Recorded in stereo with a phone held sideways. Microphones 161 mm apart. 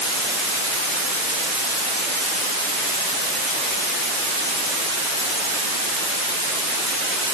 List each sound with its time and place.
Only background noise.